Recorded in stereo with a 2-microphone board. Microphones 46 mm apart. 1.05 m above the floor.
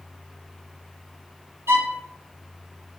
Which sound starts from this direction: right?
A violin, at 1.7 s.